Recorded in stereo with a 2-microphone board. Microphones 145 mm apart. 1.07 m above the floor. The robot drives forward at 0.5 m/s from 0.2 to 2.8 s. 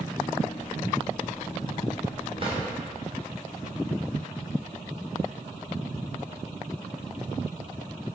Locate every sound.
2.4 s a drawer: 40° right (ahead or behind), 2 m; by 2.6 s 45° right (ahead or behind), 2 m